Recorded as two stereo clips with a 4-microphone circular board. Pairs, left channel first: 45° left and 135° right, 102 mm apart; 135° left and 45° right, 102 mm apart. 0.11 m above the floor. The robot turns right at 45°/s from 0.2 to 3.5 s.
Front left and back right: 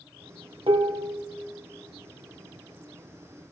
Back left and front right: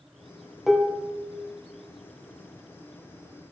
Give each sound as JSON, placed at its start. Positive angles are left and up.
{"t": 0.7, "sound": "dishes clattering", "azimuth_deg": -135, "distance_m": 1.6}